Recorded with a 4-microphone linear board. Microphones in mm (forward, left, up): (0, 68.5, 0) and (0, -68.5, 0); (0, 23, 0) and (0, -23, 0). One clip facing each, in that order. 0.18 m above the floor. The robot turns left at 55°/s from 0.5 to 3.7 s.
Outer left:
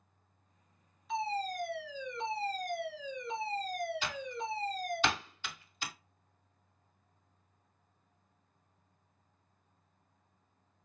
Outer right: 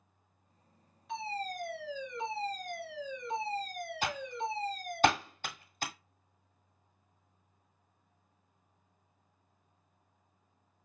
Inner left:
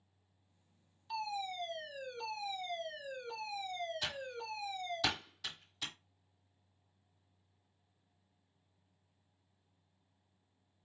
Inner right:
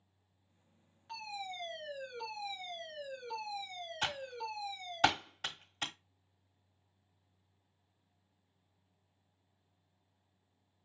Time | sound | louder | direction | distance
1.1 | a fire alarm | outer left 3 dB, inner left 4 dB | 105° right | 4 m
4.0 | typing on a keyboard | outer right 3 dB, inner right 3 dB | 50° right (ahead or behind) | 1.0 m